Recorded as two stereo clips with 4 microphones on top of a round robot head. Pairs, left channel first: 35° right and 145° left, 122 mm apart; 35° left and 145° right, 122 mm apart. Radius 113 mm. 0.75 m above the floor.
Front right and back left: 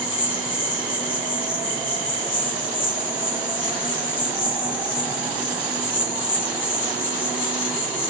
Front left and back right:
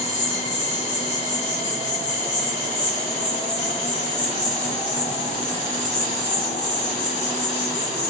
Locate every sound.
0.0 s an insect: 45° right, 0.8 m